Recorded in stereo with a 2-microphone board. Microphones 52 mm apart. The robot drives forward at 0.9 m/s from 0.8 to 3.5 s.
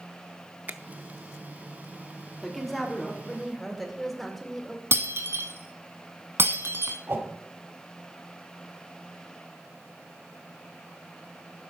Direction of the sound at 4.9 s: 55° right (ahead or behind).